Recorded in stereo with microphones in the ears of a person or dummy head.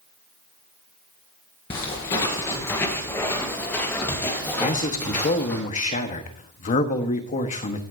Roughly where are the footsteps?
Centre.